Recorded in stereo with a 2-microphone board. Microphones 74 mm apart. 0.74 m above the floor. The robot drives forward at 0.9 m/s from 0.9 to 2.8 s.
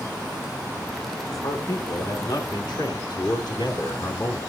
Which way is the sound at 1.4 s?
55° left (ahead or behind).